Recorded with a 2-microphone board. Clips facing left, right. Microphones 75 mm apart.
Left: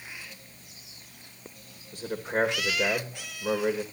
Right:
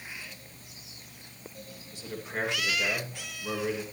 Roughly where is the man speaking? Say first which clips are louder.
Left 7 dB; left.